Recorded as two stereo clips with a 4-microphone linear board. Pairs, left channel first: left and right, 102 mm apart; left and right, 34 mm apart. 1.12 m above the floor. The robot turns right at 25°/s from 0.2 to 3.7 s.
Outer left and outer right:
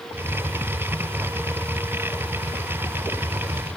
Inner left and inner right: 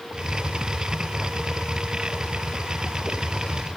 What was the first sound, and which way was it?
Only background noise.